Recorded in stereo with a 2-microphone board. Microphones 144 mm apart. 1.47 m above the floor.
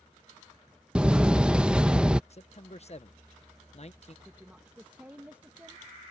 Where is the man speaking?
50° left (ahead or behind).